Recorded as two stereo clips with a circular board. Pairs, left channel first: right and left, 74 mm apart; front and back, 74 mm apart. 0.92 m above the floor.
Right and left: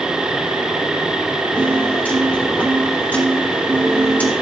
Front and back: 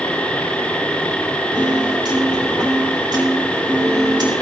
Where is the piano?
160° right, 4 m.